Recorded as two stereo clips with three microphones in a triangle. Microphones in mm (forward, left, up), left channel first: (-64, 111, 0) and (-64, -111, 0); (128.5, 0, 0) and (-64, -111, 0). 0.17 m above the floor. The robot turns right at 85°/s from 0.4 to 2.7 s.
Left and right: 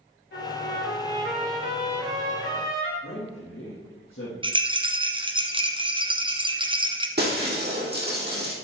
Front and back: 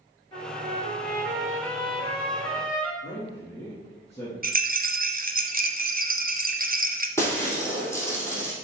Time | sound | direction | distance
0.3 | a trumpet | 100° left | 3.5 m
3.0 | a man speaking | 105° left | 3.5 m
4.4 | a rattle | 145° right | 1.1 m
7.2 | breaking glass | 50° right | 3 m